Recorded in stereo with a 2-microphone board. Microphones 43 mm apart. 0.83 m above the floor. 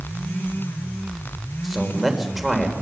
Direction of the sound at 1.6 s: 5° right (ahead or behind).